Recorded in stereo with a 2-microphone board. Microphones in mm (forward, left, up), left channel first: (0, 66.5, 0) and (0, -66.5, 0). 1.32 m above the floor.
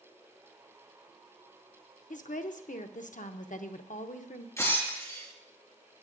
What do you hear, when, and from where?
2.1 s a woman speaking: 75° left (ahead or behind), 0.8 m
4.6 s breaking glass: 20° left (ahead or behind), 4 m